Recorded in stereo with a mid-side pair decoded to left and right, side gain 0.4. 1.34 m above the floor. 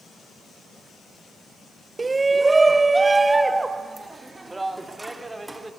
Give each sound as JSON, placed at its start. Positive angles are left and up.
{"t": 2.0, "sound": "a shout", "azimuth_deg": -25, "distance_m": 0.9}